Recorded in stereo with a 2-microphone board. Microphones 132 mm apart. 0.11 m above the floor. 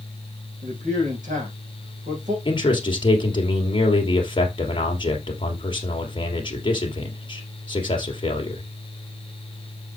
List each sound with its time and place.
0.6 s a man speaking: 70° right (ahead or behind), 5.5 m
2.5 s a man speaking: 40° left (ahead or behind), 2.5 m